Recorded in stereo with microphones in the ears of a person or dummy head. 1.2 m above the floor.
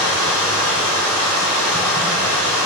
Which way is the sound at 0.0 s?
10° left (ahead or behind).